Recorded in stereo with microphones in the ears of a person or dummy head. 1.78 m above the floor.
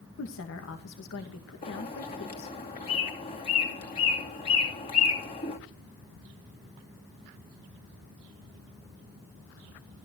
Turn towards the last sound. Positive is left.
turn(degrees=30)  # may be behind; listen again after turning